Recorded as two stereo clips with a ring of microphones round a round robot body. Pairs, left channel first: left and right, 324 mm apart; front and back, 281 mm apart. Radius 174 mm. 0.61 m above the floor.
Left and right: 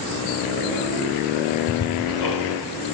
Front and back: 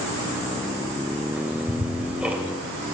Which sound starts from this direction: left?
Ticking, at 1.4 s.